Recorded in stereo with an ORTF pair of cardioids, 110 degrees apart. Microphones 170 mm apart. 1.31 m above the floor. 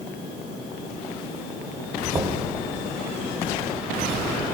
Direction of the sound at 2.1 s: 35° right.